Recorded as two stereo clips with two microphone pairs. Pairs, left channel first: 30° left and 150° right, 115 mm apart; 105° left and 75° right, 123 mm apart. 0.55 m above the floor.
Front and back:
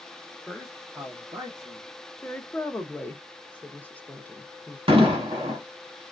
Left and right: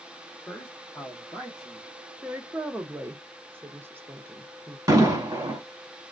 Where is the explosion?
130° right, 1.6 m.